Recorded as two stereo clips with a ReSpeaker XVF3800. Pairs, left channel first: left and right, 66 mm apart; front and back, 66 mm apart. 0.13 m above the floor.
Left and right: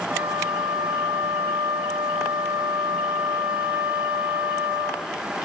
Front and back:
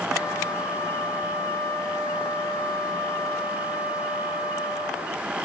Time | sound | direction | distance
0.1 | a flute | 40° right | 7.5 m